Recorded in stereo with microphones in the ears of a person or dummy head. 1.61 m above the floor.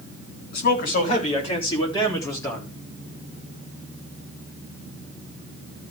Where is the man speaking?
50° left (ahead or behind), 3.5 m; by 2.7 s 10° left (ahead or behind), 4 m.